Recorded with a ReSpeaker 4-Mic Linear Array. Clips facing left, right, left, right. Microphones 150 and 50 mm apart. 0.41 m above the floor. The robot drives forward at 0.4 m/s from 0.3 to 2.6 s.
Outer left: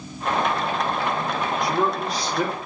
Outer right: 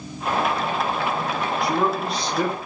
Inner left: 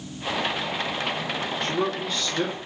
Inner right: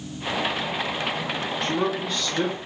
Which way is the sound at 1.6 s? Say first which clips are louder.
Outer right 2 dB, inner right 2 dB; centre (ahead or behind).